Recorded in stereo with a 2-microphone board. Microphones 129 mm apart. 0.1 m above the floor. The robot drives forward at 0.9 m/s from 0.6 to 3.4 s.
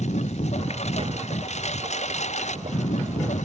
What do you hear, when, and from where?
0.0 s a lawn mower: 60° left (ahead or behind); by 3.5 s 65° left (ahead or behind)